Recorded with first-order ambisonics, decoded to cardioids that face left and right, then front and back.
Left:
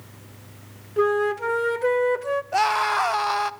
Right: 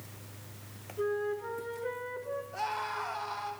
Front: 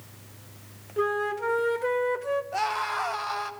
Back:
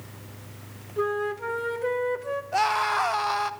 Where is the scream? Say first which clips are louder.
Left 15 dB, back 9 dB; 105° left, 1.0 m.